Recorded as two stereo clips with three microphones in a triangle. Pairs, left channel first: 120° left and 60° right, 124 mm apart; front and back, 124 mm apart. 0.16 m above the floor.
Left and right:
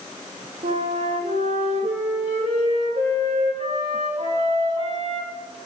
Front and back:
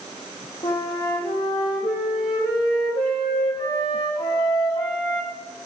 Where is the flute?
50° right, 6 m.